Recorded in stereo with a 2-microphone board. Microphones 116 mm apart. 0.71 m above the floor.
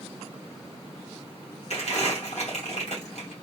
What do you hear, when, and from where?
1.7 s crumpling: 75° left (ahead or behind), 1.6 m